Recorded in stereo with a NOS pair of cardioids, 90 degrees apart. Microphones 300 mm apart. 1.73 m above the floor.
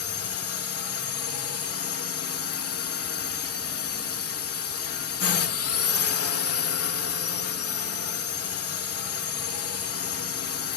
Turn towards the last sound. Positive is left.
turn(degrees=50)